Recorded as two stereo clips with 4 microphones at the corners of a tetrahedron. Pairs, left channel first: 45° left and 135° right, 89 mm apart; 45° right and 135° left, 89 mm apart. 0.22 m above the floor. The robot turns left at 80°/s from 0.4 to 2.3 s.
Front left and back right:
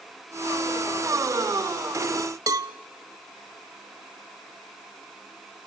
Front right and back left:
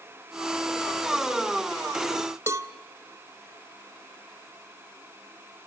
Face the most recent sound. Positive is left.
turn(degrees=-175)